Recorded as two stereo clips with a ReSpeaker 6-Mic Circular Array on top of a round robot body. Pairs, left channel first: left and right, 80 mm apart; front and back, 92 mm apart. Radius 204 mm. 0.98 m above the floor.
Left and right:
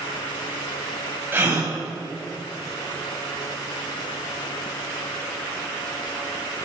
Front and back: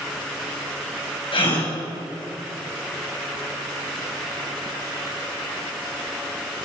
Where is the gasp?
25° right, 6 m.